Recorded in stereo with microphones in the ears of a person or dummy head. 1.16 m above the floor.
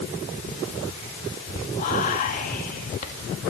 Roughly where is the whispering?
Left.